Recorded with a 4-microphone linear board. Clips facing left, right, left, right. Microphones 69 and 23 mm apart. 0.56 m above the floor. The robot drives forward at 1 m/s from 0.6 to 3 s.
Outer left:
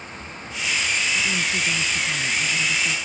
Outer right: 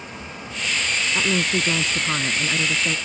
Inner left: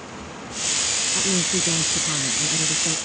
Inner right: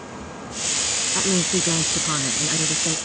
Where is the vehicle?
25° right (ahead or behind); by 3.1 s 20° right (ahead or behind).